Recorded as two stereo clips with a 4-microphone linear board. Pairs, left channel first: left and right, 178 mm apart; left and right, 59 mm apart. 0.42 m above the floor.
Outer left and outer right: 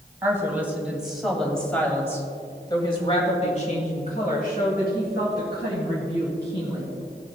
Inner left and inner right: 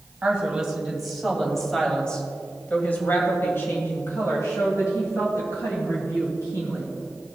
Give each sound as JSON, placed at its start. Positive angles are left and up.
{"t": 0.2, "sound": "a woman speaking", "side_deg": -15, "distance_m": 2.5}